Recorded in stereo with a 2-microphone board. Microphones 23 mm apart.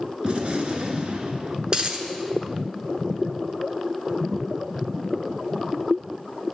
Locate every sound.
0.2 s a gunshot: 50° right (ahead or behind), 1.1 m
1.7 s a dropped coin: 45° right (ahead or behind), 1.1 m